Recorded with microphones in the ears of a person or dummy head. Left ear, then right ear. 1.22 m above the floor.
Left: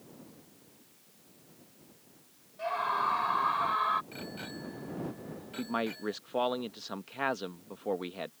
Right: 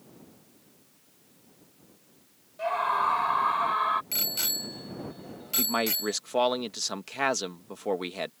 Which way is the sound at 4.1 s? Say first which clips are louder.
Right 12 dB; 85° right.